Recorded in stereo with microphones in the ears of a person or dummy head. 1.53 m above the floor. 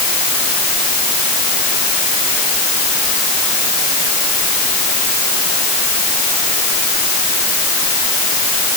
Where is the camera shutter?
No camera shutter in this recording.